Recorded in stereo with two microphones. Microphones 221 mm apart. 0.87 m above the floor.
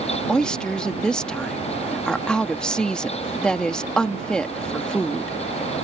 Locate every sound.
0.3 s a woman speaking: 5° left (ahead or behind)